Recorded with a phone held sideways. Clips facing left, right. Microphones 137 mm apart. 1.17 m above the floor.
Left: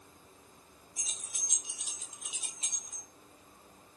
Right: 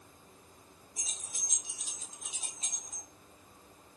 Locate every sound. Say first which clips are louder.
1.0 s keys jangling: right 1 dB; 40° right (ahead or behind), 2.5 m